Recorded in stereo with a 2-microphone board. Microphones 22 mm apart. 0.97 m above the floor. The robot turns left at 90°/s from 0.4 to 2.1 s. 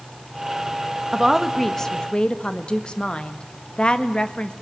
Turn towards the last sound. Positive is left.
turn(degrees=130)